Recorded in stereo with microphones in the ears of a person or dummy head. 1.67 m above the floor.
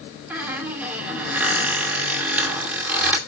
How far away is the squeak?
About 2.5 m.